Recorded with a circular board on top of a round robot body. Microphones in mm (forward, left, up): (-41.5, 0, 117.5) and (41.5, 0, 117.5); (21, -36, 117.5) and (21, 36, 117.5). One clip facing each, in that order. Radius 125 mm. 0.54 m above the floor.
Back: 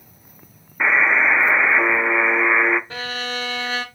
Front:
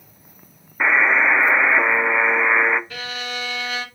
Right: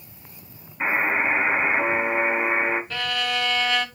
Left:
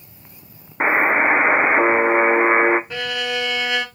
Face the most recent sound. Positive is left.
turn(degrees=155)